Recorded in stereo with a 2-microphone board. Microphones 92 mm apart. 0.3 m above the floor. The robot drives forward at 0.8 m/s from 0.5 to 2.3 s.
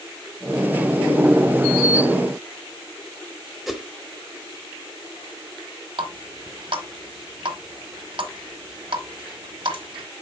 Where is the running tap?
60° right (ahead or behind), 1.5 m.